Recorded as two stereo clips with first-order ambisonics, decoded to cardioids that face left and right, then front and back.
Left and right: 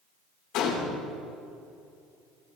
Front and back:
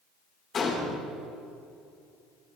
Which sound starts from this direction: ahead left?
A gunshot, at 0.5 s.